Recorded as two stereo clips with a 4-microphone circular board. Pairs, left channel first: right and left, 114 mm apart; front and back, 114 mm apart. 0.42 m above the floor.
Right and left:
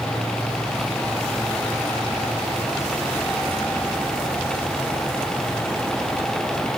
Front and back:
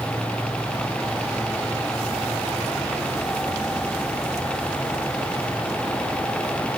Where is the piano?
No piano in this recording.